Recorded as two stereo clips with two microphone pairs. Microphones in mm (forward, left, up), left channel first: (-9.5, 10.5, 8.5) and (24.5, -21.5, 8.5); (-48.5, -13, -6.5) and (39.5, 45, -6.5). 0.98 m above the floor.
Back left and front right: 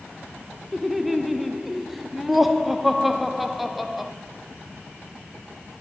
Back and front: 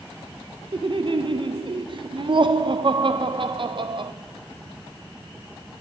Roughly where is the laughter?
Ahead left.